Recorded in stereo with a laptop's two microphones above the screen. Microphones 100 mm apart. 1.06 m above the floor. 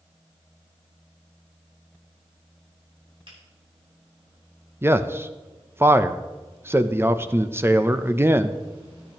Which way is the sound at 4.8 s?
25° right (ahead or behind).